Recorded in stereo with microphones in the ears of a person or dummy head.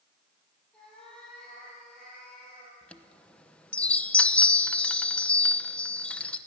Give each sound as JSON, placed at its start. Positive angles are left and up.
{"t": 0.7, "sound": "a cat meowing", "side_deg": 5, "distance_m": 7.5}
{"t": 2.8, "sound": "a chime", "side_deg": 10, "distance_m": 0.9}